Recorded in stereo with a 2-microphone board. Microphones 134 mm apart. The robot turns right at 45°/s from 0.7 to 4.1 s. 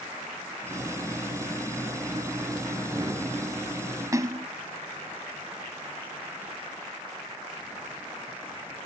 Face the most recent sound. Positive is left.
turn(degrees=-25)  # may be behind; listen again after turning